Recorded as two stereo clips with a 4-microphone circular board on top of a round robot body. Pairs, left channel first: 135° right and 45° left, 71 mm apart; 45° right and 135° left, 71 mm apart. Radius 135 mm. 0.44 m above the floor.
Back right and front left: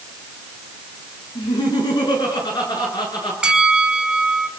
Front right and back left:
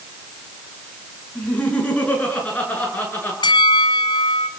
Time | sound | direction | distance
1.4 | laughter | 120° right | 7.5 m
3.4 | a bell | 35° right | 1.2 m